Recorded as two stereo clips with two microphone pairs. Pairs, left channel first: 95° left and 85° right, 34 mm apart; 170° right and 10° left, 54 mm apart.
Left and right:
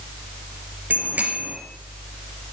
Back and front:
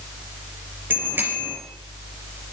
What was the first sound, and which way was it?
A bicycle bell, 40° right.